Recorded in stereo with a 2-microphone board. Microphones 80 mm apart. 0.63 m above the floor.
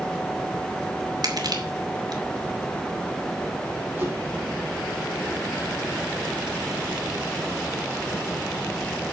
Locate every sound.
1.2 s crushing: 55° right (ahead or behind), 2.5 m
4.0 s a whoosh: 25° right (ahead or behind), 4 m